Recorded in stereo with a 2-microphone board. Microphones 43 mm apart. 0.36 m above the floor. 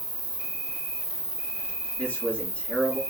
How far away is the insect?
About 4.5 m.